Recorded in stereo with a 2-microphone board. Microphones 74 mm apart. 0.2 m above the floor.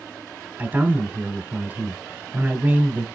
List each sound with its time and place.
0.6 s a man speaking: 20° right (ahead or behind), 1.6 m